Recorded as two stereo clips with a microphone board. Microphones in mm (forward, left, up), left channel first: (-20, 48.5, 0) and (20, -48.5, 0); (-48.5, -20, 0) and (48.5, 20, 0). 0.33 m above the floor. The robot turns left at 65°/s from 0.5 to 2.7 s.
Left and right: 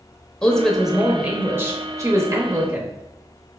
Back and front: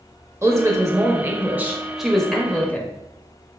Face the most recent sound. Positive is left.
turn(degrees=-105)